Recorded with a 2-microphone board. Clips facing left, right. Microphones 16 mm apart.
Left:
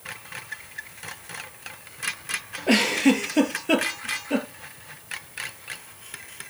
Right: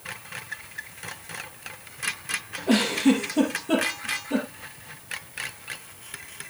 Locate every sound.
2.7 s a giggle: 80° left, 3 m